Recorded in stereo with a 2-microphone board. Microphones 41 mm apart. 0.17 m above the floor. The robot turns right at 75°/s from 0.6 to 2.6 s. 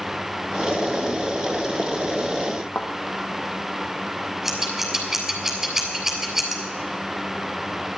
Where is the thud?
55° left (ahead or behind), 2 m.